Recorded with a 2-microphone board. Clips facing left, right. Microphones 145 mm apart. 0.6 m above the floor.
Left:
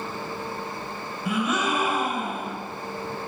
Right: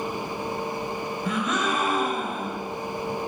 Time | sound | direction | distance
1.2 | a gasp | 10° left (ahead or behind) | 2.5 m